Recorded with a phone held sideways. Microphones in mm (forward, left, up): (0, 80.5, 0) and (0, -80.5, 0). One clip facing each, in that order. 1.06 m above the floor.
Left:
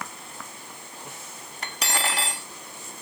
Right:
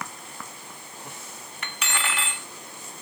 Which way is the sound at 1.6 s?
35° left (ahead or behind).